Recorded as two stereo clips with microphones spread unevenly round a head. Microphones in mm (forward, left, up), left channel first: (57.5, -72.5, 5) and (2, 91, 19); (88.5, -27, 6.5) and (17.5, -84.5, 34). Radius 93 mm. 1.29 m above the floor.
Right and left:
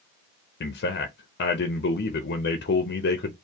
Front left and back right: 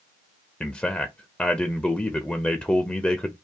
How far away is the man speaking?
About 0.7 m.